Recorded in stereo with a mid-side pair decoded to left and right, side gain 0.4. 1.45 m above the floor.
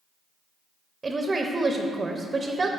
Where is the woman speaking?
30° right, 0.6 m.